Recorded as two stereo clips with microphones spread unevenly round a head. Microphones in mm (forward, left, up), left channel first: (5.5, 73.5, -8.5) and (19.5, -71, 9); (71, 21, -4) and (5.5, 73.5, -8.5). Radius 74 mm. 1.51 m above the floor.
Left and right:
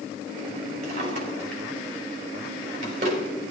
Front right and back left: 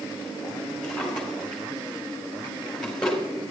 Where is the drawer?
125° right, 3.5 m.